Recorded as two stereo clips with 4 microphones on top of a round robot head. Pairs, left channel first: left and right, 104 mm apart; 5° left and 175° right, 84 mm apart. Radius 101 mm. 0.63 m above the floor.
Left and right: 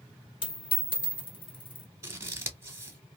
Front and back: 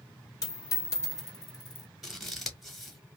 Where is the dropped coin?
55° left, 1.5 m.